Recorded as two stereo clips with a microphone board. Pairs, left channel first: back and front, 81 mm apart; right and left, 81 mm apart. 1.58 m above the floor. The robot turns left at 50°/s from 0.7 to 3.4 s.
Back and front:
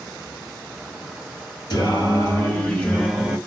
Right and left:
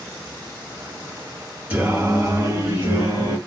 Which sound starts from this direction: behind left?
Singing, at 1.7 s.